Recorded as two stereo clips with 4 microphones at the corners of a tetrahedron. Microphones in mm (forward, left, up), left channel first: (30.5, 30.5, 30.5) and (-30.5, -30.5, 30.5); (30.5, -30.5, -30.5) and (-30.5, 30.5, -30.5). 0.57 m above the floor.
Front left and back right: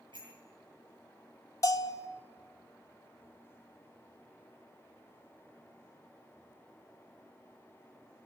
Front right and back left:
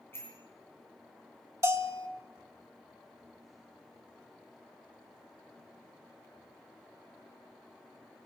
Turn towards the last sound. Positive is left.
turn(degrees=85)